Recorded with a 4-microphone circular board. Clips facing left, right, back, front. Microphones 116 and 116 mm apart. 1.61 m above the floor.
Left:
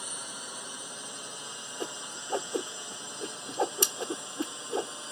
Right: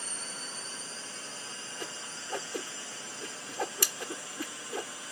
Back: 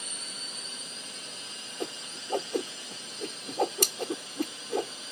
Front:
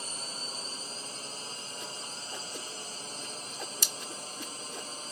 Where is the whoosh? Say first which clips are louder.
Left 6 dB, back 6 dB; 155° left.